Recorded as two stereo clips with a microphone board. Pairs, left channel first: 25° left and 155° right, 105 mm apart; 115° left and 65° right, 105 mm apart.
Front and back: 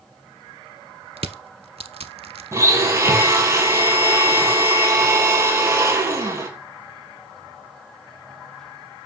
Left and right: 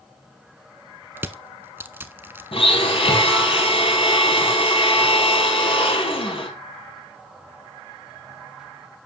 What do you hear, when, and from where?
1.2 s crushing: 135° right, 0.5 m
2.5 s a blender: 140° left, 2 m